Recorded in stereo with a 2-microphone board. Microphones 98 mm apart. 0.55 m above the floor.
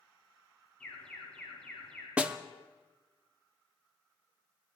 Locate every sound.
0.8 s an alarm: 10° left (ahead or behind), 3 m
2.2 s a snare drum: 15° right (ahead or behind), 0.6 m